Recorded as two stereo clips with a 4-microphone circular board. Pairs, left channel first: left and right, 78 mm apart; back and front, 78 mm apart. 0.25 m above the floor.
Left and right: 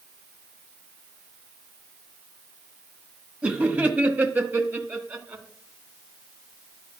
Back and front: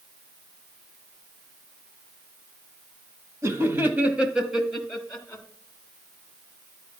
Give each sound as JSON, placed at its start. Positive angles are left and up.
{"t": 3.4, "sound": "laughter", "azimuth_deg": -25, "distance_m": 1.4}